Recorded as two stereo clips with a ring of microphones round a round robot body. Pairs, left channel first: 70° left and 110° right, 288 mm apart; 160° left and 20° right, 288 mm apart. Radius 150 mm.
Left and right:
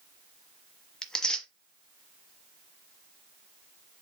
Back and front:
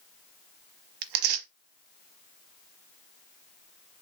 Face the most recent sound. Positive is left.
turn(degrees=-20)